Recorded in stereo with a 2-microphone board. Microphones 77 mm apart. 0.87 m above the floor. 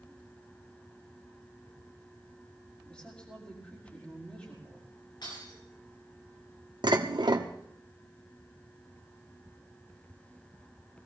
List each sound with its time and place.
2.9 s a woman speaking: 20° left (ahead or behind), 5 m
5.2 s breaking glass: 75° left (ahead or behind), 7.5 m
6.8 s dishes clattering: 75° right (ahead or behind), 1.2 m